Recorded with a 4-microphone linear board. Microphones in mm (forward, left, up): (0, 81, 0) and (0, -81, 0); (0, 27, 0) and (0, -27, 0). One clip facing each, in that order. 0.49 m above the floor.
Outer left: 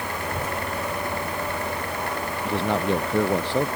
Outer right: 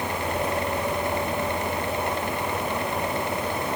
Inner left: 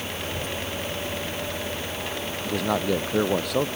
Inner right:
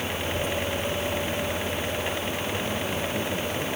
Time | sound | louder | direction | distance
0.2 | a child speaking | outer right 4 dB, inner right 3 dB | 45° left (ahead or behind) | ?
2.4 | a man speaking | outer left 4 dB, inner left 4 dB | 85° left | ?